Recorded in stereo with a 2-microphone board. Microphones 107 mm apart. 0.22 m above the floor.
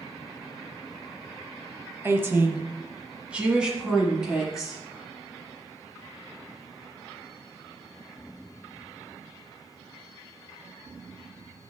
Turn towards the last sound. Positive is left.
turn(degrees=-5)  # may be behind; listen again after turning